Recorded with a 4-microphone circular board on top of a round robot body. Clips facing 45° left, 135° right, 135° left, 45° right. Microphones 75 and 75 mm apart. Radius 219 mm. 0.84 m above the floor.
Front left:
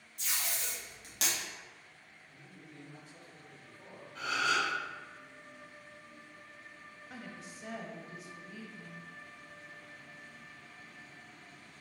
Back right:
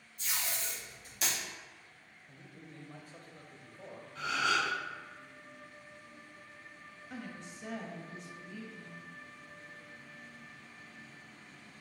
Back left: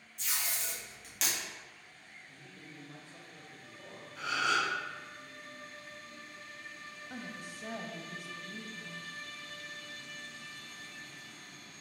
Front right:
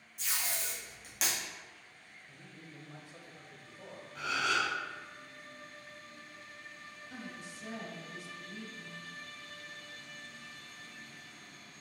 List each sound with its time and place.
0.2 s tape being pulled: 40° left, 1.8 m
2.3 s a man speaking: 120° right, 1.0 m
4.2 s a gasp: straight ahead, 1.6 m
7.1 s a woman speaking: 130° left, 1.1 m